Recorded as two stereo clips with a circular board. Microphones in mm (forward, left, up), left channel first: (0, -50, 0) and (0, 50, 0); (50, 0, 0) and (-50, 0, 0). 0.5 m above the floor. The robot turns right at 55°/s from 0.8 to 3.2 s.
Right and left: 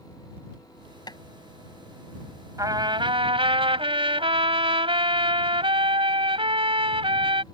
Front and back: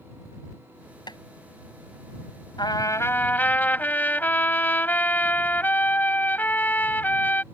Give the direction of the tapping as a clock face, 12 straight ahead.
1 o'clock.